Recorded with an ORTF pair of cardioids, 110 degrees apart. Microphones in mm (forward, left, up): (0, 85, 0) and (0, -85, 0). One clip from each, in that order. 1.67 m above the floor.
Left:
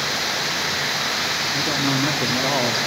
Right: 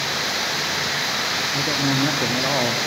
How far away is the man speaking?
About 0.6 m.